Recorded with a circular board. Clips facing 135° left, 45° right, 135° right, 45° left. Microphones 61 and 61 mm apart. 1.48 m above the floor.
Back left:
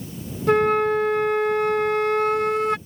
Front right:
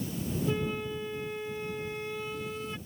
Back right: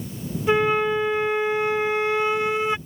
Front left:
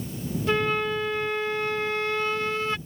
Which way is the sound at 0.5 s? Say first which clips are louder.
Back left 18 dB, back right 5 dB; 150° left.